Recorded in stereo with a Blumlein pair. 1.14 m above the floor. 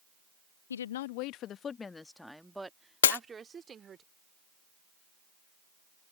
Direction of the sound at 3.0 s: 65° left.